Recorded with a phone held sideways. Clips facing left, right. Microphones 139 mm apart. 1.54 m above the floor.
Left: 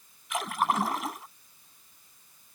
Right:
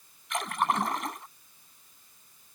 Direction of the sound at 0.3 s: 5° left (ahead or behind).